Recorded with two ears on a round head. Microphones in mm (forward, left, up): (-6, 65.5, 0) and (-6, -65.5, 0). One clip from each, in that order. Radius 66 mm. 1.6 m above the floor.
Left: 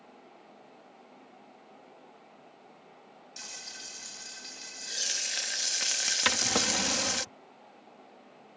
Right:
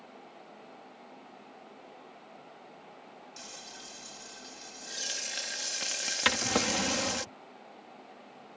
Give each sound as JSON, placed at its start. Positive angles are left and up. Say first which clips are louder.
{"t": 3.4, "sound": "frying", "louder": "left 5 dB", "side_deg": 35}
{"t": 6.2, "sound": "a drawer", "louder": "right 1 dB", "side_deg": 10}